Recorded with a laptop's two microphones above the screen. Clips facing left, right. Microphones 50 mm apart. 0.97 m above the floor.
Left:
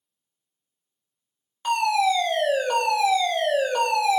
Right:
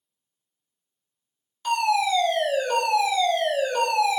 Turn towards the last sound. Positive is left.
turn(degrees=25)  # may be behind; listen again after turning